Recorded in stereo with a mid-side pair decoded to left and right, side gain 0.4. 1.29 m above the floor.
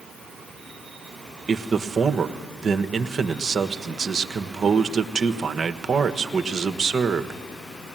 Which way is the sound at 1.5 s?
45° right.